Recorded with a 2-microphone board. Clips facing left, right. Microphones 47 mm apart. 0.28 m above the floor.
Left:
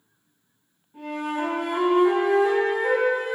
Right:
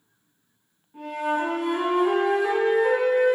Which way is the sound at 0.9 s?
5° right (ahead or behind).